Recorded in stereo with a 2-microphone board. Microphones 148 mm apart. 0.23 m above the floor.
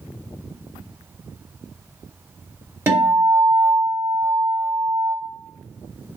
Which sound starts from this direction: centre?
A guitar, at 2.9 s.